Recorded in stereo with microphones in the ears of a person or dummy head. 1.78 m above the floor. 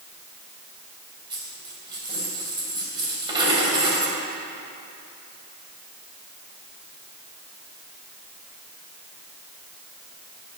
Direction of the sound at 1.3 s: 25° right (ahead or behind).